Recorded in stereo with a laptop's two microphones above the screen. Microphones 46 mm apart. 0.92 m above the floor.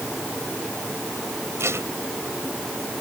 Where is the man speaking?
No man speaking in this recording.